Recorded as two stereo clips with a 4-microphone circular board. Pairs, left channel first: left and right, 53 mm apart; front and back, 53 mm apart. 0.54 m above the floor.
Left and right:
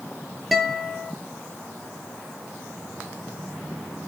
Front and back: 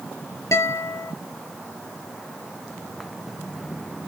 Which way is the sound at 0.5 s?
5° right.